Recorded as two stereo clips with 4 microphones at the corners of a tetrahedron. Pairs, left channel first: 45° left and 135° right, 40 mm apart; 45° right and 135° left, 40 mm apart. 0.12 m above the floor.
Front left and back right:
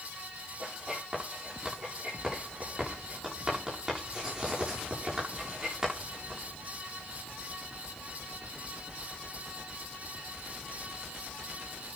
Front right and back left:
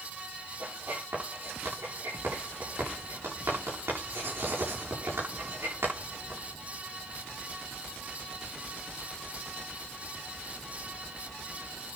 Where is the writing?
150° left, 9 m.